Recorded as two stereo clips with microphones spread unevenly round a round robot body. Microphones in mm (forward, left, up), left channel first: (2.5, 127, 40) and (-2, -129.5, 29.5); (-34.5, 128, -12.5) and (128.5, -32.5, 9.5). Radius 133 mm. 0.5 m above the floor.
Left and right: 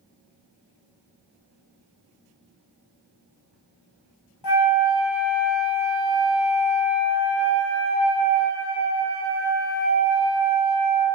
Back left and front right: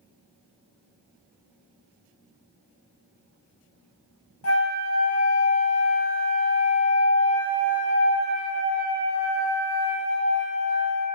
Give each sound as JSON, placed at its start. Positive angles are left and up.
{"t": 4.4, "sound": "a flute", "azimuth_deg": 110, "distance_m": 0.6}